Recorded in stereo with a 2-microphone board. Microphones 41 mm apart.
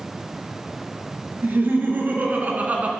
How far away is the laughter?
About 2.5 m.